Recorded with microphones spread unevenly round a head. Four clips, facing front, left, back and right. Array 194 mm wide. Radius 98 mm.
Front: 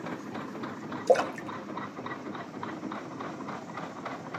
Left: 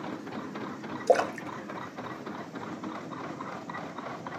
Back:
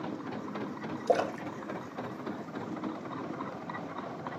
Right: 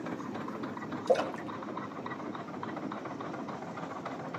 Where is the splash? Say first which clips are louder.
Left 4 dB, front 4 dB; 55° left, 1.6 m.